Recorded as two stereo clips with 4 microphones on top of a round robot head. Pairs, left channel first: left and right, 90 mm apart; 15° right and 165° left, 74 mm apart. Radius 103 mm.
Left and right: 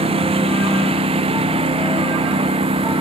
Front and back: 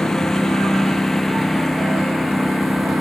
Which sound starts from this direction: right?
A lawn mower, at 0.0 s.